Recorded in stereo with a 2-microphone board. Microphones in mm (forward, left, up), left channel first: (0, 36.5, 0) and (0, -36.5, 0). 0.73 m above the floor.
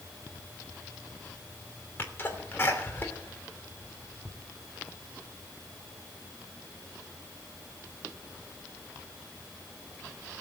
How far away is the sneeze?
About 2.5 m.